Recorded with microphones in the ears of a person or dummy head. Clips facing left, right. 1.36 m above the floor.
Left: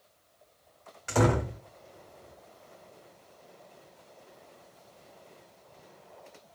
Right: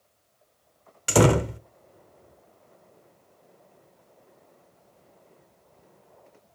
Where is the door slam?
55° right (ahead or behind), 0.6 m.